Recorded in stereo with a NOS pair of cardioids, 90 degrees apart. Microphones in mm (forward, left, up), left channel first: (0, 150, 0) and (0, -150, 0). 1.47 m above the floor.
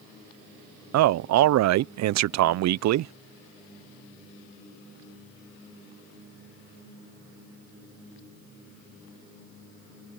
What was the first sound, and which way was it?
A man speaking, 65° right.